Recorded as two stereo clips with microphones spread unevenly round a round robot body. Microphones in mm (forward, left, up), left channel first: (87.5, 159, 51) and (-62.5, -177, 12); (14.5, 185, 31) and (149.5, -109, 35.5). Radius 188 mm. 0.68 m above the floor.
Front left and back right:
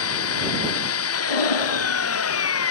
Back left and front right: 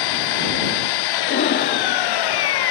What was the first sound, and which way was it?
An engine running, 120° left.